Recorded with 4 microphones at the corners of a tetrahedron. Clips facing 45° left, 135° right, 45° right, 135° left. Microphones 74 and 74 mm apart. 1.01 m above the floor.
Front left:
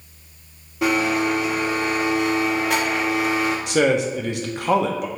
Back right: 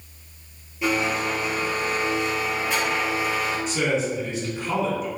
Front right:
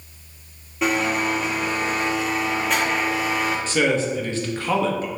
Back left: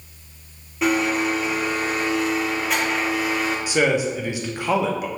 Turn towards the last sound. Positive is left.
turn(degrees=60)